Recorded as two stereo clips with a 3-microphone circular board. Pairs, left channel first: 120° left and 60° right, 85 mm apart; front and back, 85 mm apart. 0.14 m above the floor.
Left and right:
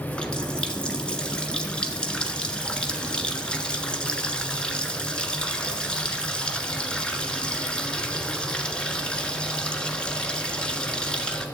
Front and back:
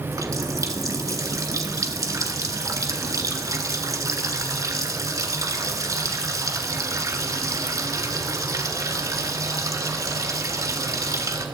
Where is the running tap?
165° right, 1.3 m.